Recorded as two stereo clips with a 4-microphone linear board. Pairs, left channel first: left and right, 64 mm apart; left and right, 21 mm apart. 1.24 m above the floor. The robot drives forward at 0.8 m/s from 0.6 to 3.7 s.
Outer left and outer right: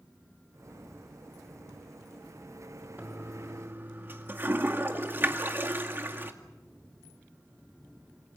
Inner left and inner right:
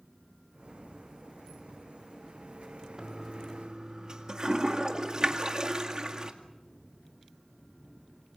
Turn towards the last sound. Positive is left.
turn(degrees=-35)  # may be behind; listen again after turning